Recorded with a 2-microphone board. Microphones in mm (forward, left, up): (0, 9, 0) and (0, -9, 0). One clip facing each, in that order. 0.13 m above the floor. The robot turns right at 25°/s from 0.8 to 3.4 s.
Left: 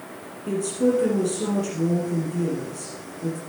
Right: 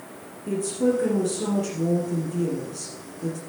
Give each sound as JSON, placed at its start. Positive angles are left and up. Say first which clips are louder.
{"t": 0.5, "sound": "a woman speaking", "louder": "left 1 dB", "azimuth_deg": 160, "distance_m": 3.5}